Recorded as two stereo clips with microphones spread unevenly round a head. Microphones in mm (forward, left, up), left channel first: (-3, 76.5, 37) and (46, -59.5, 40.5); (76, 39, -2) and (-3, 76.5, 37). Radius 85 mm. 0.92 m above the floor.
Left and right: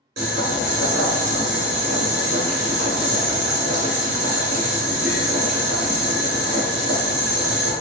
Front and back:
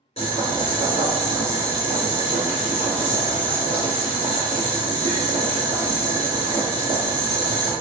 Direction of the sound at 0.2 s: 80° right.